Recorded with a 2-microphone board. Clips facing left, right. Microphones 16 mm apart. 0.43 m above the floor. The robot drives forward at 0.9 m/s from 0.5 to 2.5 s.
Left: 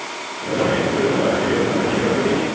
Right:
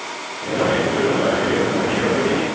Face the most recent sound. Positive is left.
No sound to turn to.